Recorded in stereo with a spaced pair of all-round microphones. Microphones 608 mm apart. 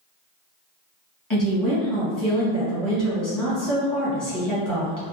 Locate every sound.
1.3 s a woman speaking: 30° left (ahead or behind), 1.4 m